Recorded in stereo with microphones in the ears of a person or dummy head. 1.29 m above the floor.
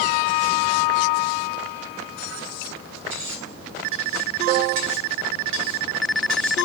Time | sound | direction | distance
3.1 | cutlery clinking | 75° right (ahead or behind) | 3 m